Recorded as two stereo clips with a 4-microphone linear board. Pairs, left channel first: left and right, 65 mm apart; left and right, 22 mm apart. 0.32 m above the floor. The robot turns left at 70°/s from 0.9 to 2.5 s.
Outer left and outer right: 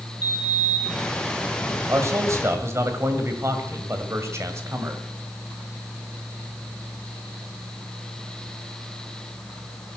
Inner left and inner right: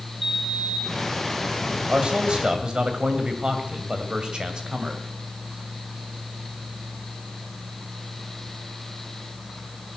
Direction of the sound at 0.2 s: 25° right (ahead or behind).